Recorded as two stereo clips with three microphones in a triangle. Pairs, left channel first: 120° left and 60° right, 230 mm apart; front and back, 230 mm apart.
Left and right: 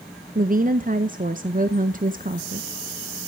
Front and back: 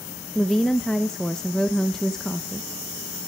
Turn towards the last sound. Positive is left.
turn(degrees=-85)